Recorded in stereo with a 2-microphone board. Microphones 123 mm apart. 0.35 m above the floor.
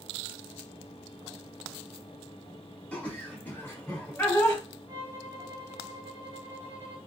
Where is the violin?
25° right (ahead or behind), 1.3 m.